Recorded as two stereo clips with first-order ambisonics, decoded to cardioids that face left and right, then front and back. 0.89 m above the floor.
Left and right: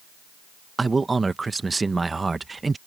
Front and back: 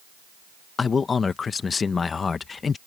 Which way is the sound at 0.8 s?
30° right.